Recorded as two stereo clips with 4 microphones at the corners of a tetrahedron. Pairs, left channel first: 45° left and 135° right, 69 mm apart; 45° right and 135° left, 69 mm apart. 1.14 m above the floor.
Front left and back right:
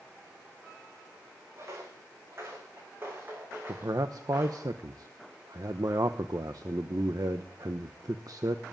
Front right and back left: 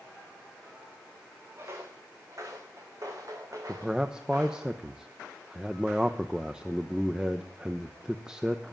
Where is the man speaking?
150° right, 0.9 m.